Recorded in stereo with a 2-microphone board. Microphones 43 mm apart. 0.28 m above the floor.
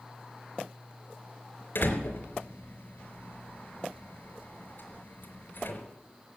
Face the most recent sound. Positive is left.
turn(degrees=65)  # may be behind; listen again after turning